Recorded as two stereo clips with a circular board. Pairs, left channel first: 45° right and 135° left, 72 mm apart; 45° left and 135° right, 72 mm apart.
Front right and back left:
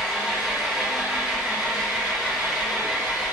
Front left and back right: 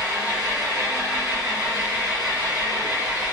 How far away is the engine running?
About 1.5 m.